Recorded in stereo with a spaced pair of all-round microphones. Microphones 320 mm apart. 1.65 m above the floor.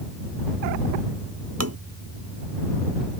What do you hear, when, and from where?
1.6 s tapping: 50° right (ahead or behind)